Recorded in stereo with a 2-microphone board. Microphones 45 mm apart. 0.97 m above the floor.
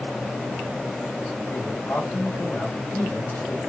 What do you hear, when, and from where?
1.5 s a man speaking: 75° left (ahead or behind), 2.5 m